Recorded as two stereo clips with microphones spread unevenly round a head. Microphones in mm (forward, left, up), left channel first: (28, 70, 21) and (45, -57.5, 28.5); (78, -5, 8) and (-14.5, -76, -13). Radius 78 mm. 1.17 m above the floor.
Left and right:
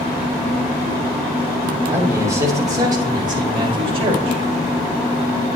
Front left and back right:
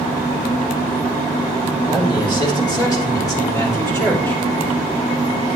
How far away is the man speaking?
About 4 m.